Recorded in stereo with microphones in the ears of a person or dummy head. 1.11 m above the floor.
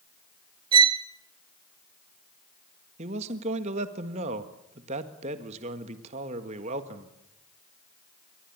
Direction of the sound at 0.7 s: 25° right (ahead or behind).